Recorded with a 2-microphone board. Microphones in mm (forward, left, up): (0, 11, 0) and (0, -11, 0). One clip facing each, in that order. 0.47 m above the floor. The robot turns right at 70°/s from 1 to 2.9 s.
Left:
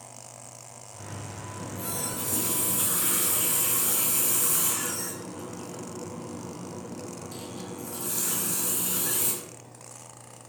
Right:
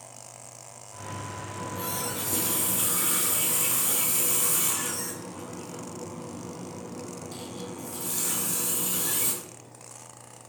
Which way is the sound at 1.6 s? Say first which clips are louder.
Right 2 dB; 115° right.